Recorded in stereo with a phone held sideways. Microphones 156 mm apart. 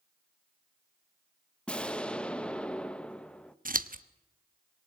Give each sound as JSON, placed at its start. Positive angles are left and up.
{"t": 1.7, "sound": "an explosion", "side_deg": 5, "distance_m": 0.9}
{"t": 3.6, "sound": "scissors", "side_deg": -65, "distance_m": 1.0}